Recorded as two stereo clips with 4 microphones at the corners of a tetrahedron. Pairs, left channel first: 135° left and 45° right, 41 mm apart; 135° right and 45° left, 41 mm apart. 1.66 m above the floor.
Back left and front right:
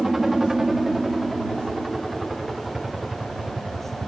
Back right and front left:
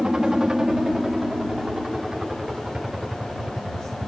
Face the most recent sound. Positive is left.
turn(degrees=20)